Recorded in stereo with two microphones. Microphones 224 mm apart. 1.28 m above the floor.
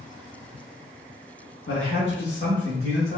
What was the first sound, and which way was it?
A man speaking, 70° left (ahead or behind).